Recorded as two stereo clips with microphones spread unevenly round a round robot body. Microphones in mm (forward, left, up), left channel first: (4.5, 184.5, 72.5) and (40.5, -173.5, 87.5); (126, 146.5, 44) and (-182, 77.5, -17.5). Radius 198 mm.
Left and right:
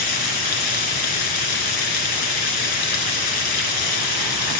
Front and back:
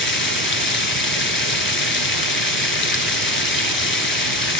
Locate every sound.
0.0 s running water: 70° left, 3 m